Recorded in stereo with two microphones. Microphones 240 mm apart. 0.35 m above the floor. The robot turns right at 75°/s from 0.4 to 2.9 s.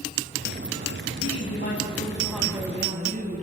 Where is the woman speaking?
95° left, 3 m; by 3.4 s 140° right, 3 m.